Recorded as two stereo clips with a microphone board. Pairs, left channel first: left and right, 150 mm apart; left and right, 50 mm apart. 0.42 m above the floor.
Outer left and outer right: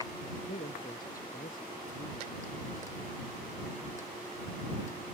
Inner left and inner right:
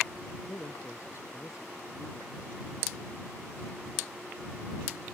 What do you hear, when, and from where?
0.5 s a man speaking: 65° left (ahead or behind); by 2.7 s 60° left (ahead or behind)